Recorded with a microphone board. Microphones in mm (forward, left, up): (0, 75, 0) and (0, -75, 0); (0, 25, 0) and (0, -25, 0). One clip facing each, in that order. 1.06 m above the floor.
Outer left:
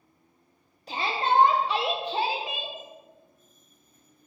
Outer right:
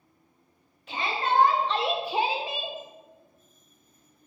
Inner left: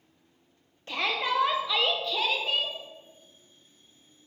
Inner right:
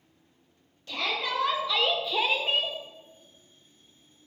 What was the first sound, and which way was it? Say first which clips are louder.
A shout: outer left 1 dB, inner left 2 dB; 35° left (ahead or behind).